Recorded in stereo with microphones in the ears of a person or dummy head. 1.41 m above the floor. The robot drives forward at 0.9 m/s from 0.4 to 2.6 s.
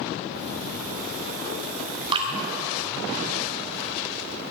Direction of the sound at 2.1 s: 25° right (ahead or behind).